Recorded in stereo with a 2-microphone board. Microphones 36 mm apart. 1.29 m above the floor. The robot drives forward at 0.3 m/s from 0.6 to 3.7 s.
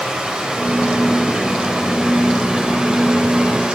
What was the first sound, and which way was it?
Running water, 20° right (ahead or behind).